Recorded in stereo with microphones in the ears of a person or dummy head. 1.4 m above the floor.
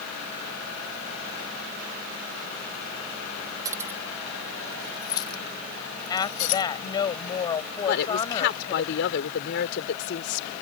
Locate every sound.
3.6 s keys jangling: 20° right (ahead or behind); by 6.6 s 45° left (ahead or behind)
6.1 s a woman speaking: 25° left (ahead or behind)
7.9 s a woman speaking: 70° left (ahead or behind)